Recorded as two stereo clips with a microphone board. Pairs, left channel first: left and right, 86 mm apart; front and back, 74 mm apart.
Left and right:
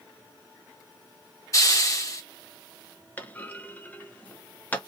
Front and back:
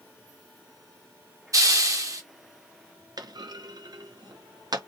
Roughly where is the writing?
I don't hear writing.